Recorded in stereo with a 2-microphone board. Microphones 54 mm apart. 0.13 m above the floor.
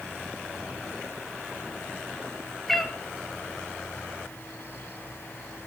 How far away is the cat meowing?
About 0.8 m.